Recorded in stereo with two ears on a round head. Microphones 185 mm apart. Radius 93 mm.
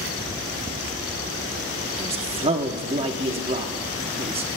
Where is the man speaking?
30° right (ahead or behind), 1.0 m.